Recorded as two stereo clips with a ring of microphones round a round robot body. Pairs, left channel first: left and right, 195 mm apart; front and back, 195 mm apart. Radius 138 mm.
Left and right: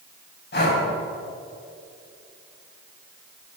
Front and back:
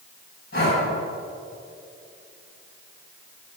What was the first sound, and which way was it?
Breathing, 60° left.